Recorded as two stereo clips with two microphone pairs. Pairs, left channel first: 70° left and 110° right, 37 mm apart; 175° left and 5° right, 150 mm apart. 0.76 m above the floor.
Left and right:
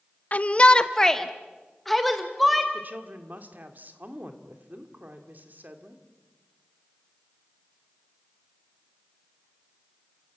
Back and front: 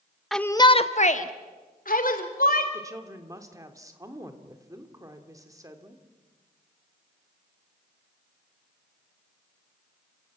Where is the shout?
85° left, 0.8 m; by 2.6 s 165° left, 3.5 m.